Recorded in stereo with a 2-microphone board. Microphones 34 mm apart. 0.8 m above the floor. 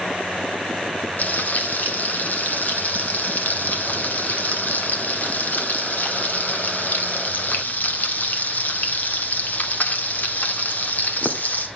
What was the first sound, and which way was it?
Frying, 60° left (ahead or behind).